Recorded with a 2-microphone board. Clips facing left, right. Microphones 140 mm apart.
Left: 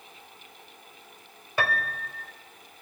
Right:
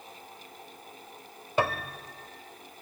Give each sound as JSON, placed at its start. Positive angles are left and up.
{"t": 1.6, "sound": "a piano", "side_deg": -20, "distance_m": 1.6}